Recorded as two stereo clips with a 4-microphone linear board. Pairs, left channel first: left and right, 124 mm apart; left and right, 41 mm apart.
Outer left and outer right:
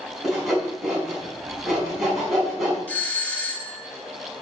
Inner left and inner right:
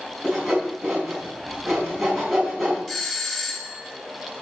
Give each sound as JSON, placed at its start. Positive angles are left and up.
{"t": 0.2, "sound": "sawing", "side_deg": 0, "distance_m": 5.0}
{"t": 2.9, "sound": "a doorbell", "side_deg": 10, "distance_m": 1.4}